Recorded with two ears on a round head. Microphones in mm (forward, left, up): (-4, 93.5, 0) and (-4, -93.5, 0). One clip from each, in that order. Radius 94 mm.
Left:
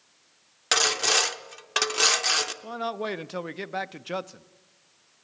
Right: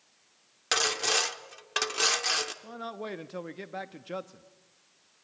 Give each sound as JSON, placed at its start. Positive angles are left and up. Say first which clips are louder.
{"t": 0.7, "sound": "sawing", "louder": "left 4 dB", "side_deg": 5, "distance_m": 0.8}
{"t": 2.6, "sound": "a man speaking", "louder": "left 8 dB", "side_deg": 25, "distance_m": 0.7}